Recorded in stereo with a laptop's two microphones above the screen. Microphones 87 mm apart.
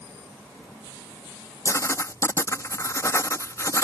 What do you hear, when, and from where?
1.6 s writing: 35° left (ahead or behind)